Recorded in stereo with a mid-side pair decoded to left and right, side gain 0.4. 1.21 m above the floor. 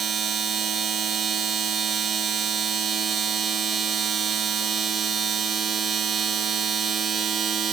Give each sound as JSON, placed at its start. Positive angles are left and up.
{"t": 0.0, "sound": "a machine running", "azimuth_deg": -55, "distance_m": 1.0}